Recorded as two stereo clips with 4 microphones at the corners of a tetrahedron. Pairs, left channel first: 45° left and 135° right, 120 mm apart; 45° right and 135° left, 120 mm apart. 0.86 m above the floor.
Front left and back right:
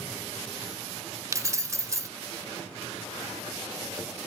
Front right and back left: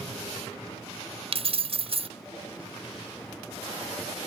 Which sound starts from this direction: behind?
Keys jangling, at 1.3 s.